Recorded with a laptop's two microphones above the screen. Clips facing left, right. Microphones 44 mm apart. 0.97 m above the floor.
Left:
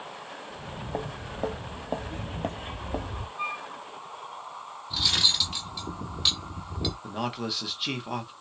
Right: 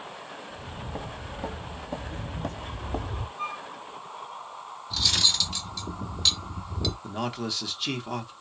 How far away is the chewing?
No chewing in this recording.